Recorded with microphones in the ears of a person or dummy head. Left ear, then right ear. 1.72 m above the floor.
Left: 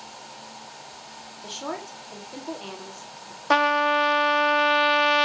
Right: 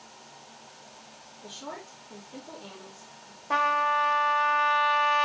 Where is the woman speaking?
70° left (ahead or behind), 3.5 m.